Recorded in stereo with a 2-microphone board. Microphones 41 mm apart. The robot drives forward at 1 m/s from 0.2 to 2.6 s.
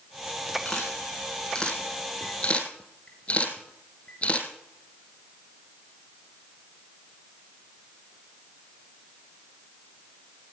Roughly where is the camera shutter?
Centre.